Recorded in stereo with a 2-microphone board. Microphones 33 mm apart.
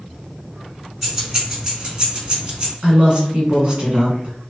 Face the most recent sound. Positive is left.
turn(degrees=-30)  # may be behind; listen again after turning